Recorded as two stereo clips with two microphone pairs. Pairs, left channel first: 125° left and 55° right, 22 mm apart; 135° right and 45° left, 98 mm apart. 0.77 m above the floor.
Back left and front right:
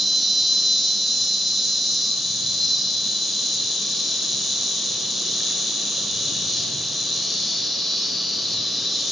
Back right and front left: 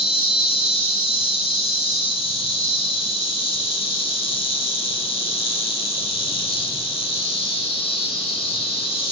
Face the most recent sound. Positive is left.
turn(degrees=-145)